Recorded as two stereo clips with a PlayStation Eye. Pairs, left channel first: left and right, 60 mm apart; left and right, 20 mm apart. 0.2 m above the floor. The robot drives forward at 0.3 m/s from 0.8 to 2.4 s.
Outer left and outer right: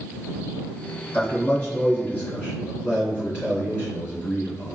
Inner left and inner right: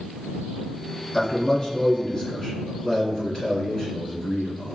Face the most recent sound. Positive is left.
turn(degrees=20)  # may be behind; listen again after turning